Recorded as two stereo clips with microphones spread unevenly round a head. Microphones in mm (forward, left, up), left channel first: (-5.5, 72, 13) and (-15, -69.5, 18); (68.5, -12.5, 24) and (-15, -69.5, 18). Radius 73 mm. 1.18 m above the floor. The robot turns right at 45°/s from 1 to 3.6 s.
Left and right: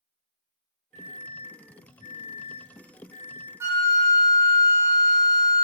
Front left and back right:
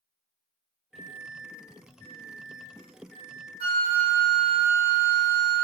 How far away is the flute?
About 0.6 m.